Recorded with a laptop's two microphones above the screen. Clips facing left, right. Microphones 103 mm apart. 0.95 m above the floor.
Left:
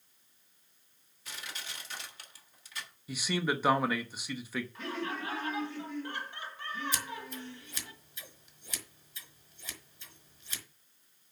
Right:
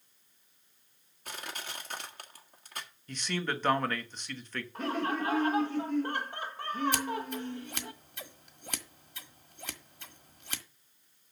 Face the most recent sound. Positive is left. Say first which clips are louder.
# right 7 dB
turn(degrees=-65)  # may be behind; listen again after turning